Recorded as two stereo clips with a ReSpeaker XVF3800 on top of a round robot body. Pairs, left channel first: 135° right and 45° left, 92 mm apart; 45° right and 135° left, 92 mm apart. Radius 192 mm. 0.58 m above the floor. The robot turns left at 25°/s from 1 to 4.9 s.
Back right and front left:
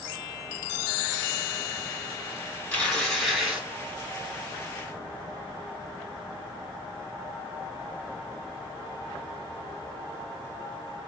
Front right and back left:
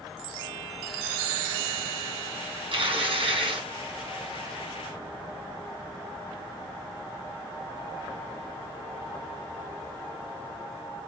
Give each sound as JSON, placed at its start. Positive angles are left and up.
{"t": 2.7, "sound": "tearing paper", "azimuth_deg": 145, "distance_m": 2.0}